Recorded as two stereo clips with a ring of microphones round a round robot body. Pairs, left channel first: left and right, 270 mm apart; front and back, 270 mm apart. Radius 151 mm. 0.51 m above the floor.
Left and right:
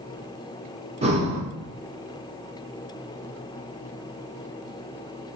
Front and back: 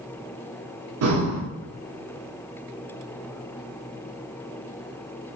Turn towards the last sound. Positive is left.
turn(degrees=-155)